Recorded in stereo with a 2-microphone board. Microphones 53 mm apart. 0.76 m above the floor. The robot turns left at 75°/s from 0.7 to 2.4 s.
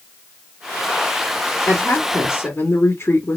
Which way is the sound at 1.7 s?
115° left.